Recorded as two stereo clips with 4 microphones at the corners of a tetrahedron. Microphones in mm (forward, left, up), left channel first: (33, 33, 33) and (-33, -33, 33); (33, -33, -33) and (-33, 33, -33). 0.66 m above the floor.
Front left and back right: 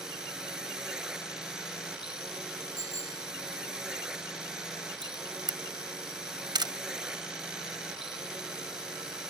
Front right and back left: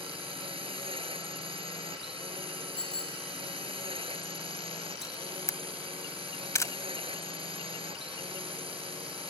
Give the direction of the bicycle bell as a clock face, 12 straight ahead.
6 o'clock.